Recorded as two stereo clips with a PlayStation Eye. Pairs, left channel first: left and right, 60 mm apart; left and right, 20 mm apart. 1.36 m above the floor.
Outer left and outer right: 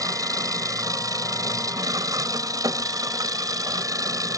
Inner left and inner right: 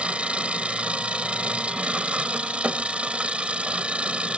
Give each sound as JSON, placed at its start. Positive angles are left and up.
{"t": 0.0, "sound": "an engine running", "side_deg": -80}